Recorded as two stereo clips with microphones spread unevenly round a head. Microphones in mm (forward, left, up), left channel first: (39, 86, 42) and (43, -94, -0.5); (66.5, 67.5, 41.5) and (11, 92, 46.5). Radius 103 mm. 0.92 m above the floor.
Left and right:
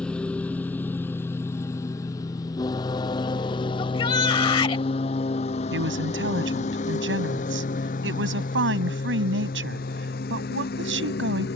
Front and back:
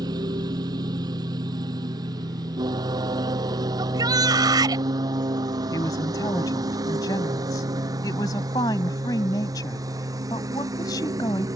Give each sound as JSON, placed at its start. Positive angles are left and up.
{"t": 0.0, "sound": "a lawn mower", "azimuth_deg": 175}
{"t": 3.8, "sound": "a shout", "azimuth_deg": 160}
{"t": 5.7, "sound": "a woman speaking", "azimuth_deg": -70}